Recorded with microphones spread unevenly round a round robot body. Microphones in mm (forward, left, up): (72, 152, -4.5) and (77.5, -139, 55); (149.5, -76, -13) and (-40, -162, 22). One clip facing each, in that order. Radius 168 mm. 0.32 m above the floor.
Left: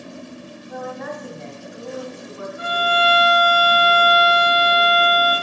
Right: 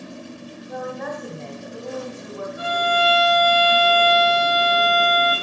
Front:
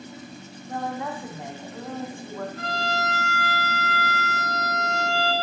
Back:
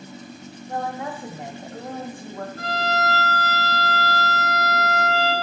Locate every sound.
0.7 s a woman speaking: 140° right, 1.2 m
2.6 s a violin: straight behind, 3.5 m